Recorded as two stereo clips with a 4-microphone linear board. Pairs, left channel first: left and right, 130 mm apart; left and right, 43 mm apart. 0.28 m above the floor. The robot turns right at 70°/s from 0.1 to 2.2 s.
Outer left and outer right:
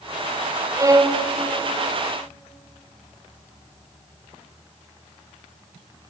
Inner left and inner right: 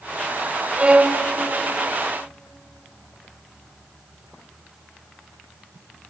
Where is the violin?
25° right (ahead or behind), 1.3 m; by 1.2 s 30° right (ahead or behind), 1.3 m.